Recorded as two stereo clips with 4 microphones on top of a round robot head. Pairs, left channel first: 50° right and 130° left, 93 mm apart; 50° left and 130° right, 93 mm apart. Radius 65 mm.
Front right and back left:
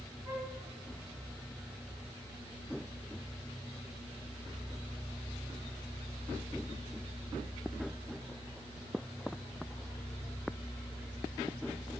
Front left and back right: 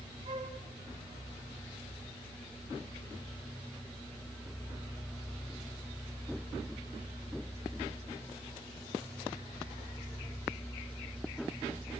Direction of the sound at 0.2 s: 165° right.